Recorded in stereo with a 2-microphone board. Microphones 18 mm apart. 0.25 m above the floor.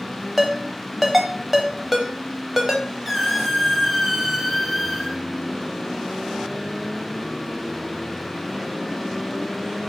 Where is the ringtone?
15° right (ahead or behind), 0.6 m.